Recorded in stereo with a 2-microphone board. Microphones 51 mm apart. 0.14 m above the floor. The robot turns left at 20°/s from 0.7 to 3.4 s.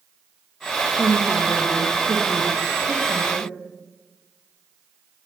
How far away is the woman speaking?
About 6.5 m.